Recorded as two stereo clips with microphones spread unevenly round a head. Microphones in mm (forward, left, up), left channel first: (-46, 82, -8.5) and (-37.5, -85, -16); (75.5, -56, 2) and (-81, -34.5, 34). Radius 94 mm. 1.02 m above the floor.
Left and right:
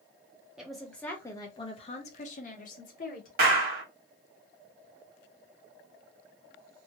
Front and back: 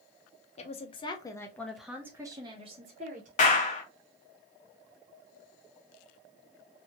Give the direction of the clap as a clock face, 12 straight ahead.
1 o'clock.